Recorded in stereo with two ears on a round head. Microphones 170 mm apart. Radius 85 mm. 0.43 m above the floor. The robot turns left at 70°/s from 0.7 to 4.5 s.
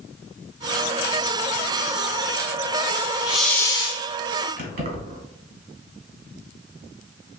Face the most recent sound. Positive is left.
turn(degrees=-50)  # may be behind; listen again after turning